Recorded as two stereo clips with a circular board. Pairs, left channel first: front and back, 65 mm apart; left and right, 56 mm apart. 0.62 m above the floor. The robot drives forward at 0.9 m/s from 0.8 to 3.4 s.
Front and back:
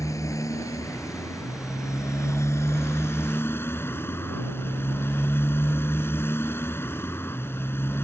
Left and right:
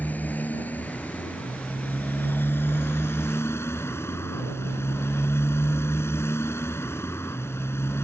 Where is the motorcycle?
30° left; by 8.0 s 50° left.